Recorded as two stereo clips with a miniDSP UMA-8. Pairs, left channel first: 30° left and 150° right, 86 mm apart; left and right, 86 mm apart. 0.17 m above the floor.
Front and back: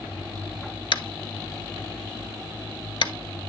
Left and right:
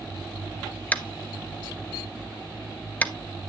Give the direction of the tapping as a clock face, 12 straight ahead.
11 o'clock.